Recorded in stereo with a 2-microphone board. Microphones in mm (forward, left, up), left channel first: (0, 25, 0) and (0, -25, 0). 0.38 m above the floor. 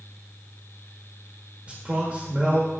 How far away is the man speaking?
About 1.2 m.